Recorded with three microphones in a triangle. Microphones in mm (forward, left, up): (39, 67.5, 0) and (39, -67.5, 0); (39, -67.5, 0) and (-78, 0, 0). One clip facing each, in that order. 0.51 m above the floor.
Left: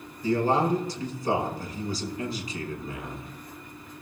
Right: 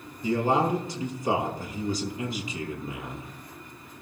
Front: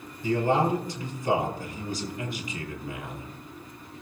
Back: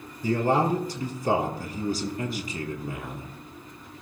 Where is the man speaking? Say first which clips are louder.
Left 1 dB, back 1 dB; 155° right, 5 m.